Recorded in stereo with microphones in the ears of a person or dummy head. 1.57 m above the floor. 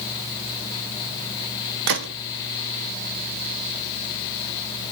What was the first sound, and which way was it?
A gunshot, 70° right (ahead or behind).